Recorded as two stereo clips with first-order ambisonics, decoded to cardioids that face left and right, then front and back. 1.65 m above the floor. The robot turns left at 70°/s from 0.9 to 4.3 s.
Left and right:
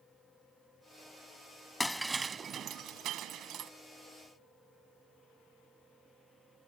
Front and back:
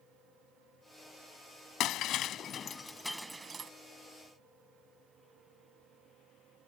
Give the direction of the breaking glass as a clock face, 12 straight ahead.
12 o'clock.